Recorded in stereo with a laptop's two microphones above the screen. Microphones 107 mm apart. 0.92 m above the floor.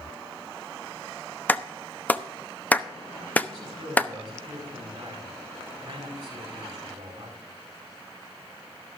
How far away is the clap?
About 0.8 m.